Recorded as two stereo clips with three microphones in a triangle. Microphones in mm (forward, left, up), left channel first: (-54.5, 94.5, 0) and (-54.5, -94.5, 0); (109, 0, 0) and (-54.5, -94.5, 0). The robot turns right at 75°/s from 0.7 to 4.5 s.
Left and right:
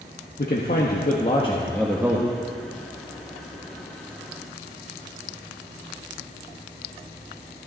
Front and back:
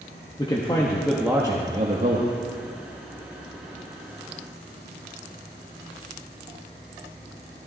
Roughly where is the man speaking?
Left.